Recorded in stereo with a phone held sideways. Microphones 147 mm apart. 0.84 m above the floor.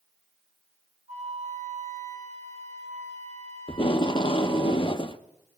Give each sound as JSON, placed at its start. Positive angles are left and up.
{"t": 1.1, "sound": "a flute", "side_deg": -50, "distance_m": 3.5}
{"t": 3.7, "sound": "tape being pulled", "side_deg": 35, "distance_m": 0.8}